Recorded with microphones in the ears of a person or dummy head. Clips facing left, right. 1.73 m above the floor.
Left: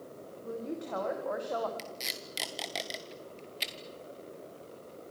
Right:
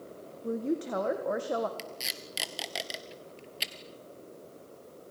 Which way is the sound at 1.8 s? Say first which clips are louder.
Even; 10° right (ahead or behind).